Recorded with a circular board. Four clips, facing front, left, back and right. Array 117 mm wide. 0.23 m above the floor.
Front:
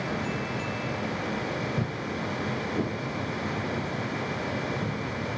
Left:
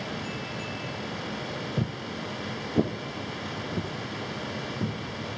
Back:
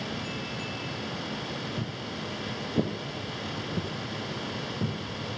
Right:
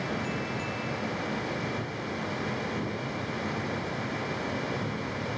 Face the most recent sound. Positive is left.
turn(degrees=140)